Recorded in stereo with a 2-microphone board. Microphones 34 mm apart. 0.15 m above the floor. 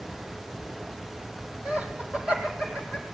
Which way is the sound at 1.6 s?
40° right (ahead or behind).